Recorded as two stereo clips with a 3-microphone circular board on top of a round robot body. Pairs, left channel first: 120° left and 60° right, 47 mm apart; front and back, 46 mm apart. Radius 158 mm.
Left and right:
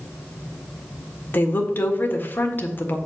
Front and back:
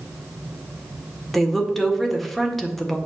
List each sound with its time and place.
1.3 s a woman speaking: 85° left, 1.8 m